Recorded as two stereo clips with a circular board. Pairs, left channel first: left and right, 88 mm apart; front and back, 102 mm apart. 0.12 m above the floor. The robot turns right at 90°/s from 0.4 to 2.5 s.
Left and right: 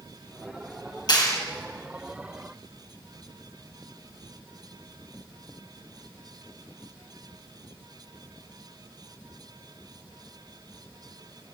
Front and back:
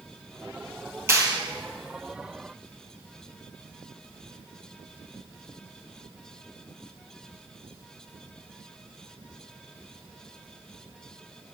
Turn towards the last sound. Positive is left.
turn(degrees=-120)